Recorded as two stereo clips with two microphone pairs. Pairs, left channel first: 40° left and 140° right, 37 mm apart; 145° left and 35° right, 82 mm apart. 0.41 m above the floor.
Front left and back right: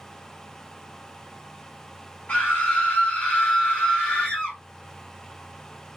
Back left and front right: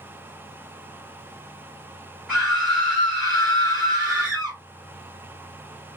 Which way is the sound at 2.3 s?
35° left.